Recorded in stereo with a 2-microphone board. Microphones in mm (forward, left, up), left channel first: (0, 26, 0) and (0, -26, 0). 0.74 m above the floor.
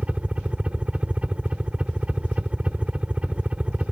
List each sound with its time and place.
0.0 s a helicopter: 25° right (ahead or behind)